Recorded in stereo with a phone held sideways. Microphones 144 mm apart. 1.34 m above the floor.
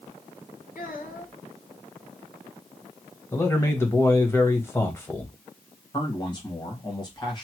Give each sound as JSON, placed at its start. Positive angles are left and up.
{"t": 0.8, "sound": "a child speaking", "side_deg": 70, "distance_m": 2.0}
{"t": 3.3, "sound": "a man speaking", "side_deg": 15, "distance_m": 0.9}
{"t": 5.9, "sound": "a man speaking", "side_deg": 30, "distance_m": 1.4}